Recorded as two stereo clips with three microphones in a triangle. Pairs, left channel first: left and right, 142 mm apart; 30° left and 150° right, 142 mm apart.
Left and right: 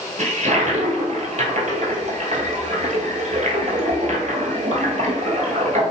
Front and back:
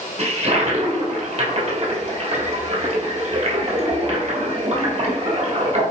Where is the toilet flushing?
115° right, 1.4 m.